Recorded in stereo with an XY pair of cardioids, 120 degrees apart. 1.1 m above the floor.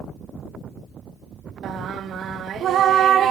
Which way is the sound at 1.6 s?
55° right.